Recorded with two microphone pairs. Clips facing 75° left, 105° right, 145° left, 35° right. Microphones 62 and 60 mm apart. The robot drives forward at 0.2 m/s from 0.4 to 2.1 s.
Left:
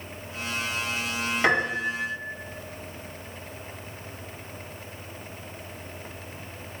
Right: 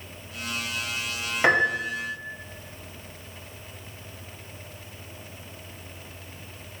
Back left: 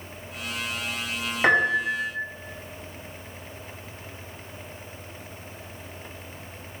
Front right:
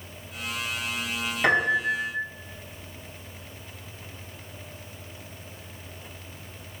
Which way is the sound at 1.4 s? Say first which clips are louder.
Right 3 dB, back left 2 dB; 165° right.